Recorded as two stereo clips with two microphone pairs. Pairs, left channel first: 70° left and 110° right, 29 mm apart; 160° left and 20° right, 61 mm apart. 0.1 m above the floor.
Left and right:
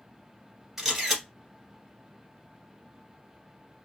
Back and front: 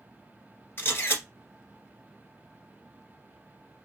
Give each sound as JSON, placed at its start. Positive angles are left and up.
{"t": 0.8, "sound": "a camera shutter", "azimuth_deg": 175, "distance_m": 1.8}